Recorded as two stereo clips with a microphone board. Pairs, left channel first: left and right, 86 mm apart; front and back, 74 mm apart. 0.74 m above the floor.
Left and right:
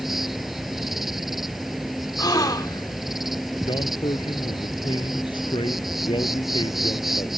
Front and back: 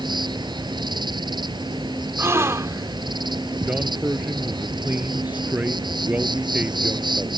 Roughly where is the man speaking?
Left.